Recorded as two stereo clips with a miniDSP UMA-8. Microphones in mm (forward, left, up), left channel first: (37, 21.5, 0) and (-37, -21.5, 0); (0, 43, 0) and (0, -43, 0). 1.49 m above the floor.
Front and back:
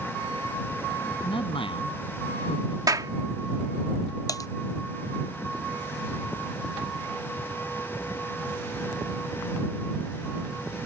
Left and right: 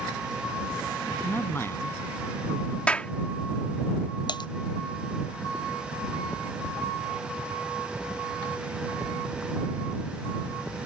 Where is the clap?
170° left.